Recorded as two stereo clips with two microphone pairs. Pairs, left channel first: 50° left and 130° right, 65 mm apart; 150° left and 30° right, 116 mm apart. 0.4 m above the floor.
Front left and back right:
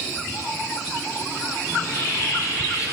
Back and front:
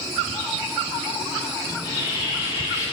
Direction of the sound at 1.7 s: 95° left.